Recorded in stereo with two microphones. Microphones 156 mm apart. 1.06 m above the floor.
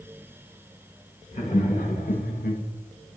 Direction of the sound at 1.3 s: 50° left (ahead or behind).